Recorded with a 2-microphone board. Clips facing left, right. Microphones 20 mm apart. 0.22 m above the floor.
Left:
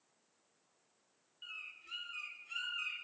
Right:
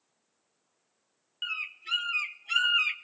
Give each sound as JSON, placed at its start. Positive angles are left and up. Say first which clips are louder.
{"t": 1.4, "sound": "a bird", "louder": "right 14 dB", "side_deg": -70, "distance_m": 0.7}